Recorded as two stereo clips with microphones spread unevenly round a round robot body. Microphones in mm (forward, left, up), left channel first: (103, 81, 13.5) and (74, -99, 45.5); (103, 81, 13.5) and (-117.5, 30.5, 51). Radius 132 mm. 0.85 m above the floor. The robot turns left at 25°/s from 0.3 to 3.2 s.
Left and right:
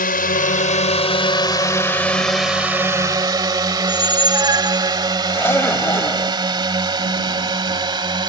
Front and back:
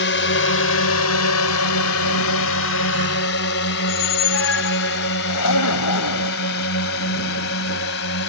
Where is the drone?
45° left; by 8.3 s 35° right.